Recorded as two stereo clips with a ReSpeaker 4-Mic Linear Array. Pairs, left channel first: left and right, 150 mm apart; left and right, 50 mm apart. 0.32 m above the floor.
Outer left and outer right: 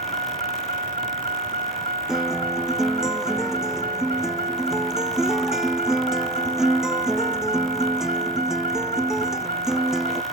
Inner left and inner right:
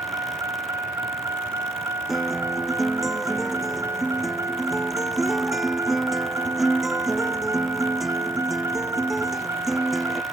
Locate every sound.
0.0 s a vehicle: 90° right; by 10.3 s 80° right
2.1 s a guitar: 5° right (ahead or behind)